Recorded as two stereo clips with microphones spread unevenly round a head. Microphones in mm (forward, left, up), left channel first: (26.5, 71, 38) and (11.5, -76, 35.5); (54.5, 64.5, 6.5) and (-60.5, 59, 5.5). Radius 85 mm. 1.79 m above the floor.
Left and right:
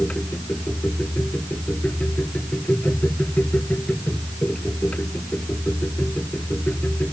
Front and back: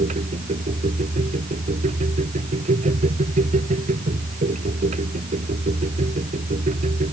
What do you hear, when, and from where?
0.0 s a machine running: 165° left